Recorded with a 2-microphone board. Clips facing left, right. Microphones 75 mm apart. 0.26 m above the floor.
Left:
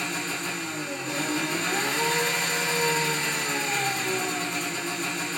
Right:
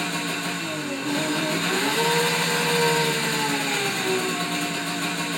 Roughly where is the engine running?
Right.